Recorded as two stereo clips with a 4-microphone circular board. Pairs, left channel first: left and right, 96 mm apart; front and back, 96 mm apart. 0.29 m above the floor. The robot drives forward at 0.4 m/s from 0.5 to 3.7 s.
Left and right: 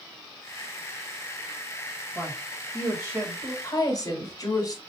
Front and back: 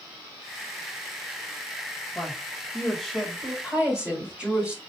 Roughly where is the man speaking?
Ahead right.